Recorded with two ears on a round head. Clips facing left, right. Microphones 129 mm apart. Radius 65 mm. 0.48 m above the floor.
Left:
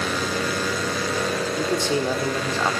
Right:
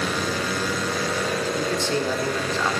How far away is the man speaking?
About 1.3 m.